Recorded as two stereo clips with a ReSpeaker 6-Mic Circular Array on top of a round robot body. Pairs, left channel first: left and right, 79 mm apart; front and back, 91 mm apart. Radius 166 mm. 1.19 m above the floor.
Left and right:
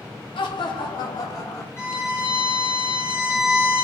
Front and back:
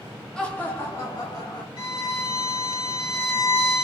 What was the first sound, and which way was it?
Laughter, 80° left.